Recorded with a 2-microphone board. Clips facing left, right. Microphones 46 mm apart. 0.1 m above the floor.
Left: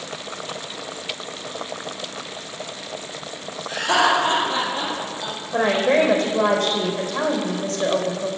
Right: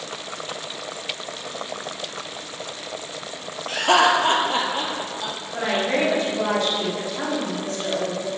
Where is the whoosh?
No whoosh in this recording.